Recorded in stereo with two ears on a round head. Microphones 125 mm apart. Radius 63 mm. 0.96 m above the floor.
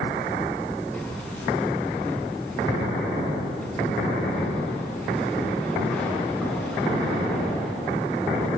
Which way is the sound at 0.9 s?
10° left (ahead or behind).